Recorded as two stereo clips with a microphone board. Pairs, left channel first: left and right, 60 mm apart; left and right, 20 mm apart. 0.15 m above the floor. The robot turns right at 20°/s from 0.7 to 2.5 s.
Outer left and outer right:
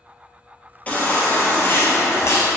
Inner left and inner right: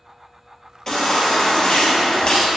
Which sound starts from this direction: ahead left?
A baby crying, at 0.9 s.